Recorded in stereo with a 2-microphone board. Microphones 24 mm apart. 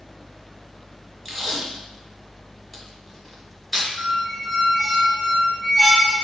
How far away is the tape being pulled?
About 1.2 m.